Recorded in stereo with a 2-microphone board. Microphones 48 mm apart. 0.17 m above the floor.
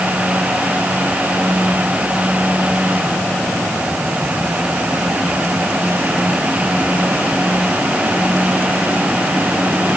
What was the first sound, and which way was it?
Only background noise.